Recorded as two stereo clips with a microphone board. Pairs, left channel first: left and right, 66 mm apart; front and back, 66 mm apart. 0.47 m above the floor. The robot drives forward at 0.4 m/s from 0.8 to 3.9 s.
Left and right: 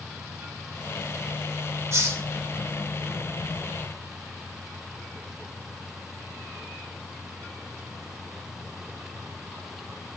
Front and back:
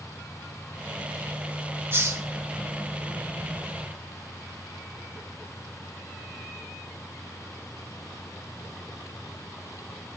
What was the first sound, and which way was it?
A hiss, 130° right.